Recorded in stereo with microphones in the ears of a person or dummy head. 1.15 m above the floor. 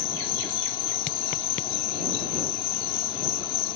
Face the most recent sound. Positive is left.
turn(degrees=25)  # may be behind; listen again after turning